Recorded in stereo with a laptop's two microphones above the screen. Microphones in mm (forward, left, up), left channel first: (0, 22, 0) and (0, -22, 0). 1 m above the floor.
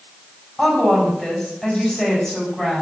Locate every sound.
0.6 s a woman speaking: 10° left (ahead or behind), 4.5 m